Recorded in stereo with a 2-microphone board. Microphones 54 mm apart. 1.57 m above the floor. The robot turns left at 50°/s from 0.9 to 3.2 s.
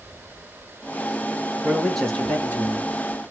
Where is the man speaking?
170° right, 2.0 m; by 2.9 s 125° left, 2.0 m.